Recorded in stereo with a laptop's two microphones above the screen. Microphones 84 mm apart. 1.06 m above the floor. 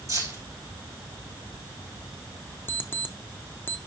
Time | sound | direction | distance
0.1 | keys jangling | 40° right (ahead or behind) | 5 m
2.7 | an alarm clock | 25° left (ahead or behind) | 0.6 m